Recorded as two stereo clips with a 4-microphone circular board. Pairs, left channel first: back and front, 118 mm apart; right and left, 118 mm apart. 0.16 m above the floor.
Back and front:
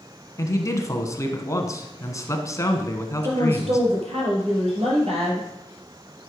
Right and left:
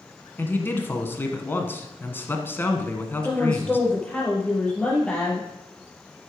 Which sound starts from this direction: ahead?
A woman speaking, at 3.2 s.